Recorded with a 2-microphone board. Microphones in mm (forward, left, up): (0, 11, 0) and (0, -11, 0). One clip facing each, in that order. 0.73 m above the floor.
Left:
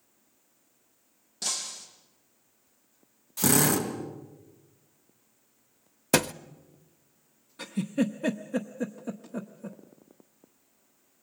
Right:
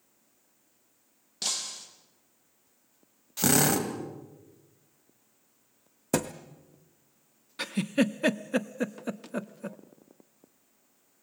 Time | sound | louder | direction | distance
1.4 | breaking glass | right 1 dB | 40° right (ahead or behind) | 4.5 m
3.4 | a drill | even | 30° right (ahead or behind) | 3 m
6.1 | a thud | left 5 dB | 85° left | 0.6 m
7.6 | a giggle | right 2 dB | 70° right (ahead or behind) | 0.7 m